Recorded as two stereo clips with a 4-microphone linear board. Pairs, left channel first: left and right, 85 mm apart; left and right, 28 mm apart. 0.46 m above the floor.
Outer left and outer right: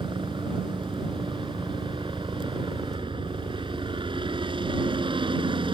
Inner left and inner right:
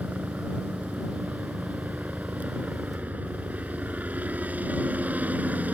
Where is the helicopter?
75° right (ahead or behind).